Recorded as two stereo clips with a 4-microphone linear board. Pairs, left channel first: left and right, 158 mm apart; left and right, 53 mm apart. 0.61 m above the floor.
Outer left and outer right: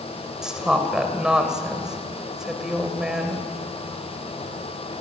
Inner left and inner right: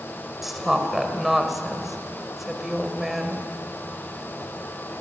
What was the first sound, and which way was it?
A woman speaking, 5° right (ahead or behind).